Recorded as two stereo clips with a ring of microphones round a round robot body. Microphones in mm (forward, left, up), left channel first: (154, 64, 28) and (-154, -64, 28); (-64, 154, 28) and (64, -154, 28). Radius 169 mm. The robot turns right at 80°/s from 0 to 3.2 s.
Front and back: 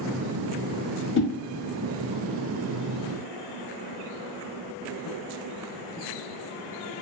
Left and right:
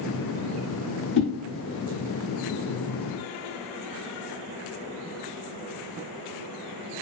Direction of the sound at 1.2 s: 65° left.